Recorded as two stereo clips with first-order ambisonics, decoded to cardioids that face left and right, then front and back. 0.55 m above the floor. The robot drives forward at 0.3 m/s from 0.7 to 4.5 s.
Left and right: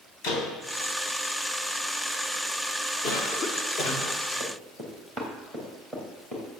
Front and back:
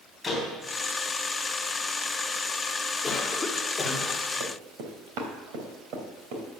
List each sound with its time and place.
0.2 s a door slam: 85° left, 3.5 m
3.0 s a cough: 65° left, 1.5 m; by 4.2 s 80° left, 1.5 m
4.4 s running footsteps: straight behind, 2.5 m; by 6.5 s 165° left, 4.5 m